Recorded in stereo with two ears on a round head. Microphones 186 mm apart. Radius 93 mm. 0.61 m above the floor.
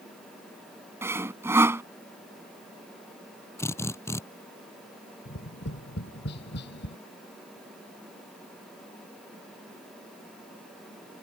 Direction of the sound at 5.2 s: 55° left (ahead or behind).